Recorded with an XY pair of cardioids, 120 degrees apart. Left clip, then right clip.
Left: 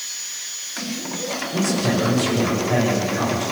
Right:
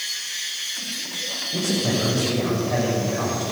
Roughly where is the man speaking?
Ahead.